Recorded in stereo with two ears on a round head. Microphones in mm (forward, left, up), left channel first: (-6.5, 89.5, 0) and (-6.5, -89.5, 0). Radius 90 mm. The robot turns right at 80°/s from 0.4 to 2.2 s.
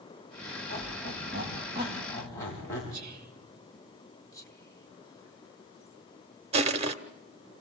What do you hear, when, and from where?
0.7 s a squeak: 75° right (ahead or behind), 7 m; by 2.8 s 15° left (ahead or behind), 7 m
2.9 s whispering: 40° right (ahead or behind), 2 m
4.3 s whispering: 15° left (ahead or behind), 1.7 m
6.5 s crushing: 30° right (ahead or behind), 1.0 m